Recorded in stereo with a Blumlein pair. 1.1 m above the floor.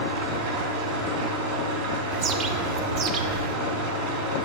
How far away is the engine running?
About 2.5 m.